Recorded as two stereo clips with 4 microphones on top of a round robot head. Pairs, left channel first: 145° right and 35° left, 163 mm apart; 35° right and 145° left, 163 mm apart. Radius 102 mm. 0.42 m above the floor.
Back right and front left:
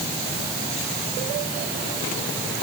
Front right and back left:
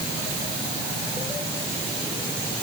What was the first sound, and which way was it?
Only background noise.